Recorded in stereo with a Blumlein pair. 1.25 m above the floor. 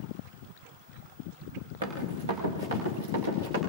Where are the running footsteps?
65° right, 6.5 m.